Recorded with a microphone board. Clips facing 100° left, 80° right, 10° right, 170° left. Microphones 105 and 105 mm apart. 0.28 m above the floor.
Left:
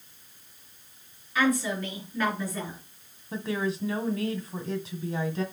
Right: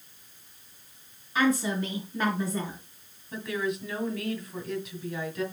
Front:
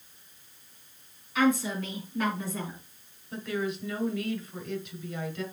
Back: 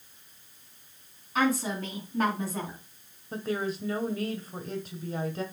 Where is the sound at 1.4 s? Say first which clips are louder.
Even, front 2 dB; 140° right, 4 m.